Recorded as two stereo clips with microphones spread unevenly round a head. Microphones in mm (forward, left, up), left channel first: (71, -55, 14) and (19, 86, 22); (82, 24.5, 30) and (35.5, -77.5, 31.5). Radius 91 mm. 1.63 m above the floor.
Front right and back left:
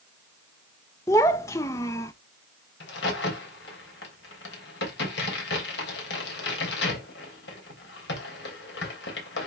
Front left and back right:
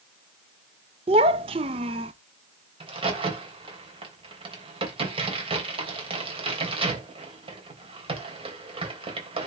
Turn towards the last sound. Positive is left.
turn(degrees=-80)